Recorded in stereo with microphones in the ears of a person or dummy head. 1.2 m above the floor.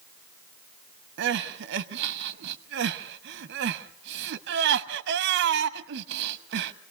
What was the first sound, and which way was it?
Crying, 55° right (ahead or behind).